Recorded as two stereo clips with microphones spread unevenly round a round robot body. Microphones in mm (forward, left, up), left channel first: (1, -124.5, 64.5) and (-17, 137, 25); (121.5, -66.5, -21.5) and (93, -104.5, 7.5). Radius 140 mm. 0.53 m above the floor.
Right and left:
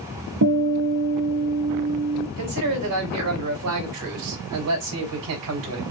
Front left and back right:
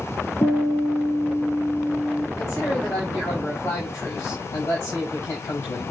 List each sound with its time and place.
0.4 s a guitar: 125° left, 3 m
2.4 s a man speaking: 110° left, 3 m